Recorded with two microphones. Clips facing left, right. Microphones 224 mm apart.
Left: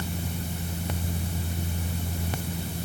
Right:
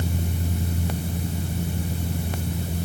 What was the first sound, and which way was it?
Only background noise.